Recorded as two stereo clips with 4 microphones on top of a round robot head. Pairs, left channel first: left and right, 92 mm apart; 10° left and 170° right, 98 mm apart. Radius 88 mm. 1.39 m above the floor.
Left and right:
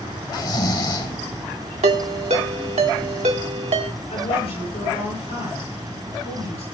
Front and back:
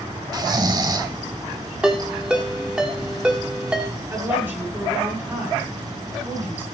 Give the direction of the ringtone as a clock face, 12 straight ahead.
3 o'clock.